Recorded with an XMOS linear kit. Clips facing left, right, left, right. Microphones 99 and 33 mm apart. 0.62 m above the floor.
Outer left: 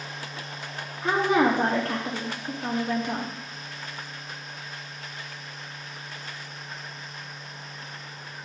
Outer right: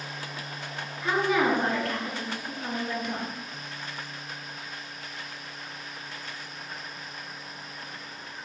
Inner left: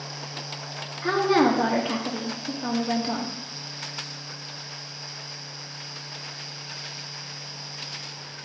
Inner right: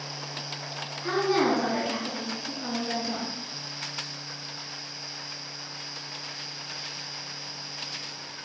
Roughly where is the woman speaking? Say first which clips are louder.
Outer left 3 dB, inner left 4 dB; left.